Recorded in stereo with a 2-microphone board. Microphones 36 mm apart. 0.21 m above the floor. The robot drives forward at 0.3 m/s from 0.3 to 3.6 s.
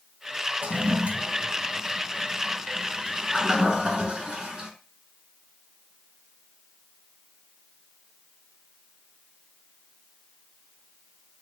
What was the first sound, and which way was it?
A toilet flushing, 45° right (ahead or behind).